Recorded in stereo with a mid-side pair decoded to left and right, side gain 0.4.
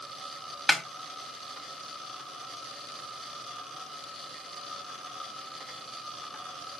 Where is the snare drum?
45° left, 1.1 m.